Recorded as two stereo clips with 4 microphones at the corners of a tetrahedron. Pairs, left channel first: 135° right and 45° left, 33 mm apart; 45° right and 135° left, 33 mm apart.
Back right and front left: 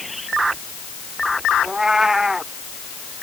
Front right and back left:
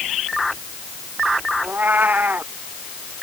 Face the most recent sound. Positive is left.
turn(degrees=120)